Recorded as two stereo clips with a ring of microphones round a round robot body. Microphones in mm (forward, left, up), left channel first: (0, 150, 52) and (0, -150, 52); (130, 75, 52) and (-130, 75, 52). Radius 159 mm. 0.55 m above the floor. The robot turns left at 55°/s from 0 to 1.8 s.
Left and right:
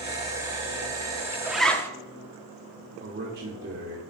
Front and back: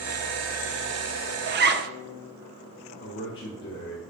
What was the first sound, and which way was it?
A zipper, 170° right.